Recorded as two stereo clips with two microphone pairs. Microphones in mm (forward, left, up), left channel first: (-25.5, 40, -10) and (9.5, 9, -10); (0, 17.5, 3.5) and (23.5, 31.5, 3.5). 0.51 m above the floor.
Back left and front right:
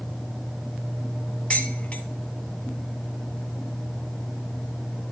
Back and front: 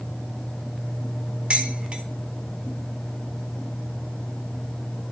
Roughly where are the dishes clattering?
Left.